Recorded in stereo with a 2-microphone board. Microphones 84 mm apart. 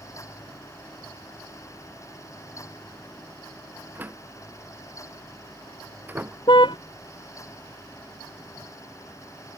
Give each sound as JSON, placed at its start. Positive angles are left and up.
{"t": 4.0, "sound": "a door slam", "side_deg": -20}
{"t": 6.5, "sound": "a car horn", "side_deg": 70}